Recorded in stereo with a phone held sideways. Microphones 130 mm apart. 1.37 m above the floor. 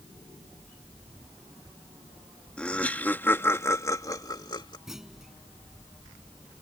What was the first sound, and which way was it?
Laughter, 10° left (ahead or behind).